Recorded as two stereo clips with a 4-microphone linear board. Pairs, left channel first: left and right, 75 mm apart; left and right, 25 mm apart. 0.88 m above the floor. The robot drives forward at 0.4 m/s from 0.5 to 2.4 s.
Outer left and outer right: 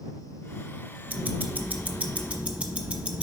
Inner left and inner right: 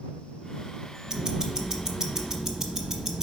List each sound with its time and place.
1.1 s ticking: 25° right (ahead or behind), 0.7 m; by 3.2 s 20° right (ahead or behind), 0.9 m